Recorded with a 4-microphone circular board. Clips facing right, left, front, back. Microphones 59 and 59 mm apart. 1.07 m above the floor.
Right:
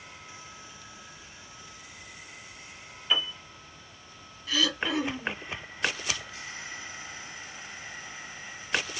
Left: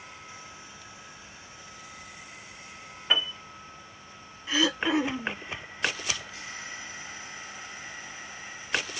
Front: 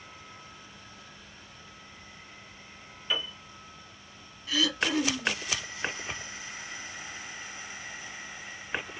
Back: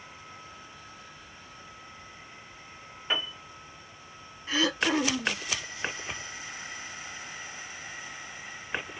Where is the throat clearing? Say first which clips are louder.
Left 3 dB, back 2 dB; 145° left, 0.7 m.